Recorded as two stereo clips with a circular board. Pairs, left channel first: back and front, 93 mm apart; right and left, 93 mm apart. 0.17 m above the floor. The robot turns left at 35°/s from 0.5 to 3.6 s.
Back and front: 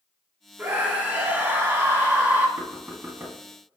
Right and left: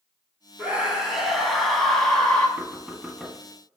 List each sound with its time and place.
0.6 s a scream: 35° left, 1.1 m; by 2.5 s 30° right, 1.1 m
2.6 s knocking: 35° left, 0.8 m; by 3.4 s 10° left, 0.8 m